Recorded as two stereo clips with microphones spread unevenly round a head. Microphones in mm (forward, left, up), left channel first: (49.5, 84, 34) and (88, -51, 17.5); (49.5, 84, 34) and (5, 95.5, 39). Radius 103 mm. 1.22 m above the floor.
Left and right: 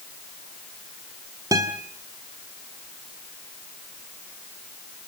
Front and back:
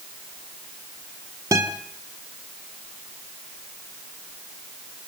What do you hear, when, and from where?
1.5 s a guitar: 150° right, 1.8 m